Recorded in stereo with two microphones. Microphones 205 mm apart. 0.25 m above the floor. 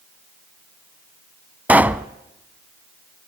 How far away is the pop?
About 0.6 m.